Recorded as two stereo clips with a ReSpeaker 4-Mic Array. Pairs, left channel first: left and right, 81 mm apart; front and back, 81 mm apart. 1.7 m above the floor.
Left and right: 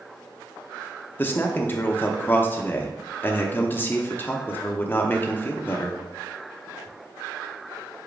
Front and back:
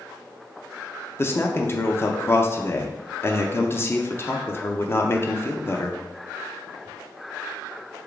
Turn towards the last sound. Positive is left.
turn(degrees=40)